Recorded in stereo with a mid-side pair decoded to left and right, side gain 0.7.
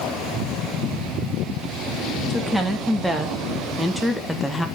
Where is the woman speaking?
5° right, 3 m; by 4.7 s 10° left, 1.4 m.